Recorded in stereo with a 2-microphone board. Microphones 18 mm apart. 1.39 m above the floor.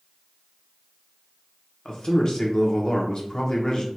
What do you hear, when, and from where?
1.9 s a man speaking: 45° left (ahead or behind), 0.9 m